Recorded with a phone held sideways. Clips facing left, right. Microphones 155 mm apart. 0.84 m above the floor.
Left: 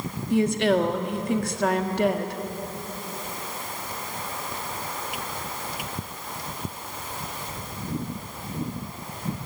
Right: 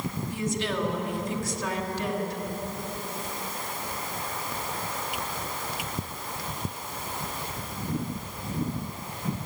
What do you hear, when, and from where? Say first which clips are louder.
0.3 s a woman speaking: left 11 dB; 65° left (ahead or behind), 1.8 m